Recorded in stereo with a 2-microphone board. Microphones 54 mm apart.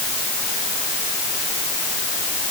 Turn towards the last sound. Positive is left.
No sound to turn to.